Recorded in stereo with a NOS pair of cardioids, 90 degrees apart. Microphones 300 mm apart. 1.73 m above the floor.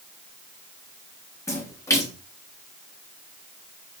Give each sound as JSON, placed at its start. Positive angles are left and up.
{"t": 1.5, "sound": "a splash", "azimuth_deg": 10, "distance_m": 3.0}